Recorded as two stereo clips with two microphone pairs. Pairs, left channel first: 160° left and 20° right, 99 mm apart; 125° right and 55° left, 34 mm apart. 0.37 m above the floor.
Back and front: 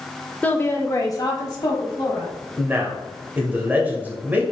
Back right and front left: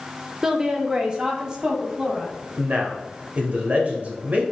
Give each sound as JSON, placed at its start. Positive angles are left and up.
{"t": 0.4, "sound": "a woman speaking", "azimuth_deg": 110, "distance_m": 0.9}
{"t": 2.6, "sound": "a man speaking", "azimuth_deg": 45, "distance_m": 1.6}